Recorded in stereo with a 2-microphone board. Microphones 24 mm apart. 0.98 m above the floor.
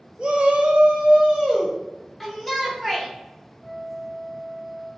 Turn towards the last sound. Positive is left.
turn(degrees=-10)  # may be behind; listen again after turning